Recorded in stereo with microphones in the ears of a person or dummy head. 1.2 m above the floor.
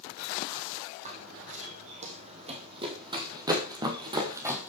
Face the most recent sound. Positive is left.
turn(degrees=-10)  # may be behind; listen again after turning